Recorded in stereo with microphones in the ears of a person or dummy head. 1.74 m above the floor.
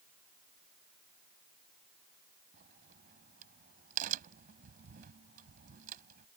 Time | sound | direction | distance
2.5 | a crack | 45° right (ahead or behind) | ?